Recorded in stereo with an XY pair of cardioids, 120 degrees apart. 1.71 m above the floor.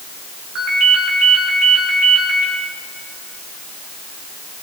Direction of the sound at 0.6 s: 65° right.